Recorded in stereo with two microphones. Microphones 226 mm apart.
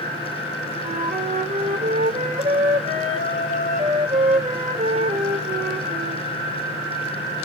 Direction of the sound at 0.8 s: 35° right (ahead or behind).